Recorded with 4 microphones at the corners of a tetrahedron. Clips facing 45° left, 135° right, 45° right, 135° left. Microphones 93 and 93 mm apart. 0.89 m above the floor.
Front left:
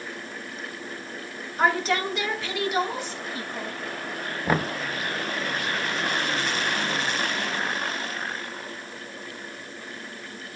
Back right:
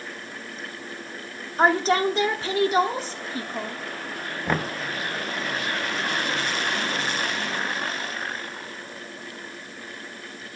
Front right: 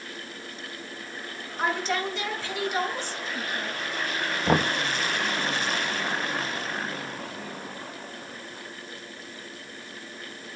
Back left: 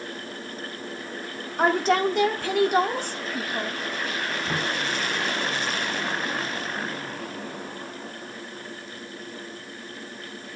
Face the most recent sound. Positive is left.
turn(degrees=-40)